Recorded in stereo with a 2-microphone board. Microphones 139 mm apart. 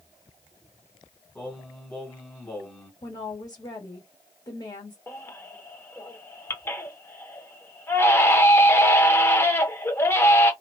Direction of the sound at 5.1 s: 20° left (ahead or behind).